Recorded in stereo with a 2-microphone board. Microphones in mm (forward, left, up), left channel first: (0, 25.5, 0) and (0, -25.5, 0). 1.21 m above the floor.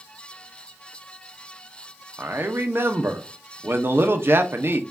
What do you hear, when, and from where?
2.2 s a man speaking: 45° right (ahead or behind), 0.7 m